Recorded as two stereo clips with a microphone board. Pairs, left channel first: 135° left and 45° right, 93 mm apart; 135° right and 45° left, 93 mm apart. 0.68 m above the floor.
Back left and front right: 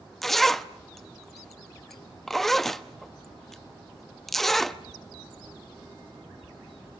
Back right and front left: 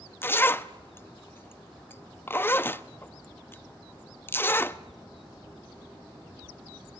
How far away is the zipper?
About 0.7 m.